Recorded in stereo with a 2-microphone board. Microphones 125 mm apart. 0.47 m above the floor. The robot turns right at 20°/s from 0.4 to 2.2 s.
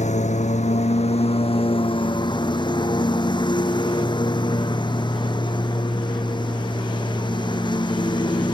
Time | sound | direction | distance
0.0 | a lawn mower | 105° left | ?